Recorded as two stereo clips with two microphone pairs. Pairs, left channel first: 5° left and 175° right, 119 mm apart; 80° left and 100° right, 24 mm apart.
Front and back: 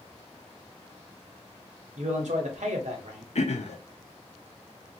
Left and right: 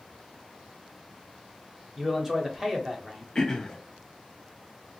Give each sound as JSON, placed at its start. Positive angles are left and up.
{"t": 2.0, "sound": "a man speaking", "azimuth_deg": -170, "distance_m": 1.0}
{"t": 3.4, "sound": "throat clearing", "azimuth_deg": 20, "distance_m": 0.6}